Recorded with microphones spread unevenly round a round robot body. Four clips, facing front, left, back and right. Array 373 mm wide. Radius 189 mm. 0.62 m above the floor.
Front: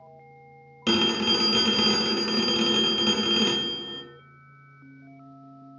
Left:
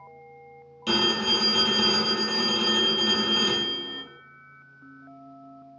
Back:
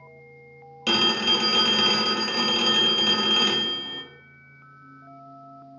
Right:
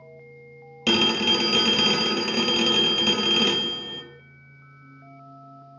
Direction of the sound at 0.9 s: 60° right.